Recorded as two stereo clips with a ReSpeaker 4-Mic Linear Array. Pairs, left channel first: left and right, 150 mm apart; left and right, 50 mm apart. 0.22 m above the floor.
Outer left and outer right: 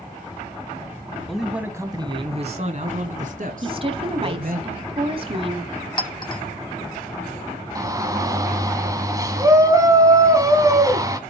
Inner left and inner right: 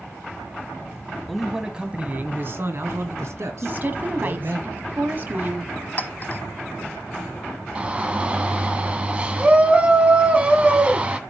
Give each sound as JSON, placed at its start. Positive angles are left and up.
{"t": 1.3, "sound": "a man speaking", "side_deg": 5, "distance_m": 1.3}
{"t": 3.6, "sound": "a woman speaking", "side_deg": -40, "distance_m": 1.2}
{"t": 6.0, "sound": "a clink", "side_deg": 30, "distance_m": 0.6}
{"t": 7.8, "sound": "a shout", "side_deg": -25, "distance_m": 1.5}